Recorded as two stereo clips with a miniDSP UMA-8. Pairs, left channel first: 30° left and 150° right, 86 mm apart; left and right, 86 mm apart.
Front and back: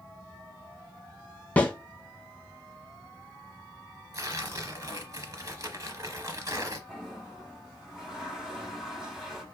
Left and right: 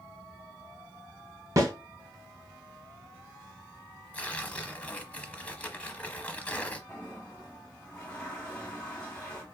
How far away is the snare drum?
About 1.0 m.